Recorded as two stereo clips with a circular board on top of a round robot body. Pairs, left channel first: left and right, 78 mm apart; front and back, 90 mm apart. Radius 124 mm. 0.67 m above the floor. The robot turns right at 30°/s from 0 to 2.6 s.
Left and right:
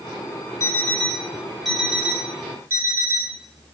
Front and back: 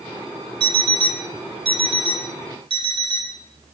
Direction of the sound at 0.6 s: 145° left.